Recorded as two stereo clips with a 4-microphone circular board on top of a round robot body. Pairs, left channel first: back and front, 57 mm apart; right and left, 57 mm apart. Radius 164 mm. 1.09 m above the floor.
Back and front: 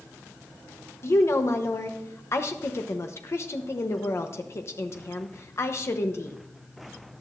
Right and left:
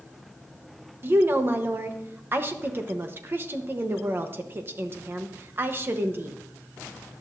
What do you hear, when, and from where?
1.0 s a woman speaking: 140° left, 1.0 m